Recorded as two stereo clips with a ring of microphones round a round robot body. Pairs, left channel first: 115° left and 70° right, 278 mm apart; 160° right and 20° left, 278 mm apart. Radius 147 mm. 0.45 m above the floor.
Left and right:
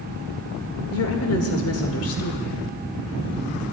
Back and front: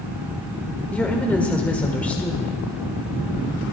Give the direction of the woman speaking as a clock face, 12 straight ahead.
8 o'clock.